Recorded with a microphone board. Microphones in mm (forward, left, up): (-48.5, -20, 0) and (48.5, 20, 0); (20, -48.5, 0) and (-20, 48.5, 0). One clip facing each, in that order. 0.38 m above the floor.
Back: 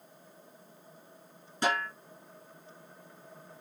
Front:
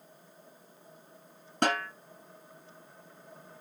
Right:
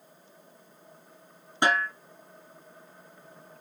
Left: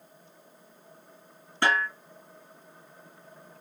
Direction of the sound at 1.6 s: 5° left.